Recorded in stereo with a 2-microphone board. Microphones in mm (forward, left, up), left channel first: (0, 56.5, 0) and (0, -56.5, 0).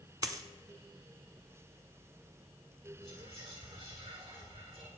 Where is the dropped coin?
35° right (ahead or behind), 0.7 m.